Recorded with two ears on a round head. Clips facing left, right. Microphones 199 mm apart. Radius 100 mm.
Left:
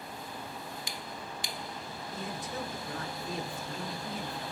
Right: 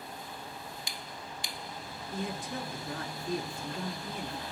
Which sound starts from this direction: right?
A man speaking, at 2.1 s.